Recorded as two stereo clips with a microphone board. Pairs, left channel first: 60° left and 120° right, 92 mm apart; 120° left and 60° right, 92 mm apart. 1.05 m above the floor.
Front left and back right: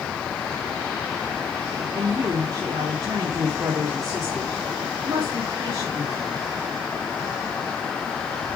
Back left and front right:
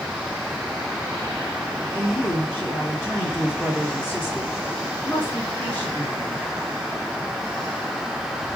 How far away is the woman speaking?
About 3.5 m.